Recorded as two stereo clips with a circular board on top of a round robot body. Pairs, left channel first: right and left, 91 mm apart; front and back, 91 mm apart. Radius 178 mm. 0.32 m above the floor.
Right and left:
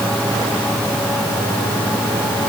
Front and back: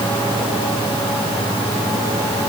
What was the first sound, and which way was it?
Only background noise.